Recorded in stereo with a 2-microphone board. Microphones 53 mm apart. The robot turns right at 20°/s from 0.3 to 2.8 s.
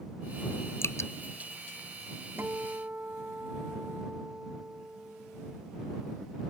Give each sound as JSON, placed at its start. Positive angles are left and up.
{"t": 0.8, "sound": "dripping", "side_deg": 55}
{"t": 2.4, "sound": "a guitar", "side_deg": -40}